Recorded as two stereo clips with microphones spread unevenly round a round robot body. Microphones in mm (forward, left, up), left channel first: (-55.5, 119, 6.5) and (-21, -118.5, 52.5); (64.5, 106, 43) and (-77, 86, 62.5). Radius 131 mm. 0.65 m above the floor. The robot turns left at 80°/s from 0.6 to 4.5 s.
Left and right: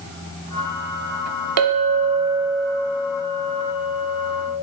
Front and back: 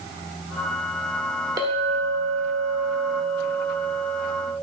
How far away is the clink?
About 1.0 m.